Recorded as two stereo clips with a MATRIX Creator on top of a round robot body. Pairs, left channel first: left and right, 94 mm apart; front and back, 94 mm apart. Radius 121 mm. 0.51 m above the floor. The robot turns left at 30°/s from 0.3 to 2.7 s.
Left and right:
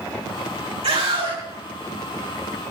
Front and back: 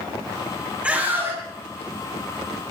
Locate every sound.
0.8 s a scream: 105° right, 5.5 m; by 1.4 s 120° right, 5.5 m